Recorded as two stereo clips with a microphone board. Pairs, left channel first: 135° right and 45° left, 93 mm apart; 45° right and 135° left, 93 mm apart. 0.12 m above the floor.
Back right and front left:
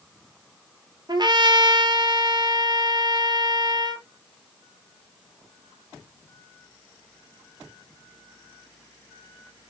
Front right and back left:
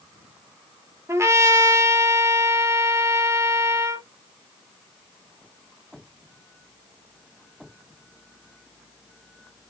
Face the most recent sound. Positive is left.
turn(degrees=80)